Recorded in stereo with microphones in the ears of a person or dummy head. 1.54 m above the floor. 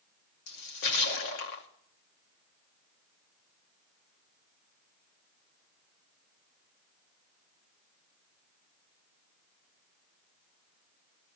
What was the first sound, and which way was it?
A splash, 70° left (ahead or behind).